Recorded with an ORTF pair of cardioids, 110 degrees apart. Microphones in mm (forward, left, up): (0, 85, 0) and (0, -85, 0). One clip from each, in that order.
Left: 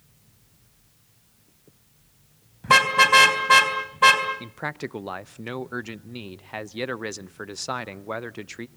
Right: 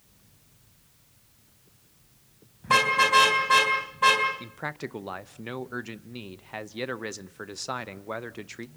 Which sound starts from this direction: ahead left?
A car horn, at 2.6 s.